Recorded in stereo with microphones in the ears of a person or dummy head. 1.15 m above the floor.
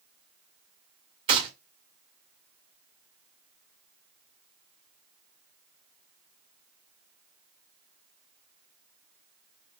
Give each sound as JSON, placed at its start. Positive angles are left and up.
{"t": 1.3, "sound": "a gunshot", "side_deg": -30, "distance_m": 1.2}